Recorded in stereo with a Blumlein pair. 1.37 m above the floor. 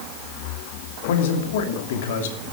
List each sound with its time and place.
1.1 s a man speaking: 55° left, 2.5 m